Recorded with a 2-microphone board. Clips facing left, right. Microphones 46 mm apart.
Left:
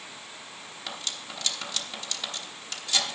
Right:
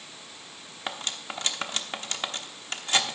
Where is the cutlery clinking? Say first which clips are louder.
Right 4 dB; 40° right (ahead or behind), 1.0 m.